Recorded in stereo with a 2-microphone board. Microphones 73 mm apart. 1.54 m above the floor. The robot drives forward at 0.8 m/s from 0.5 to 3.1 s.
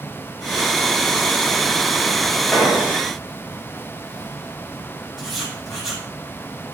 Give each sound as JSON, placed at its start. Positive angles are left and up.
{"t": 2.5, "sound": "an explosion", "side_deg": -5, "distance_m": 7.0}
{"t": 5.2, "sound": "writing", "side_deg": -5, "distance_m": 7.5}